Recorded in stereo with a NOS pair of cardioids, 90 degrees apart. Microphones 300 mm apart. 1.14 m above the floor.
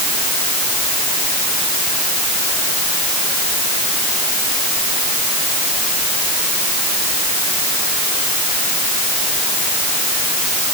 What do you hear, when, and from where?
Only background noise.